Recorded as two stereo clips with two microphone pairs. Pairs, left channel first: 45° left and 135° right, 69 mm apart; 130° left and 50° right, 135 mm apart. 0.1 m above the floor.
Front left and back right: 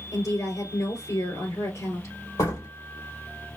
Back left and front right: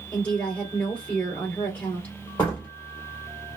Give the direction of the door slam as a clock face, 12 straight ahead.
10 o'clock.